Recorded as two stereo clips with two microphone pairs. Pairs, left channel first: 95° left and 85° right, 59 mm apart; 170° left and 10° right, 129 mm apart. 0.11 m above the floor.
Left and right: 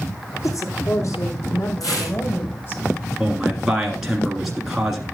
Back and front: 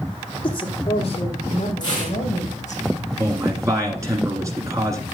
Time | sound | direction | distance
0.4 | a woman speaking | 125° left | 4 m
1.8 | tearing paper | 115° left | 8.5 m
3.2 | a man speaking | 5° right | 1.7 m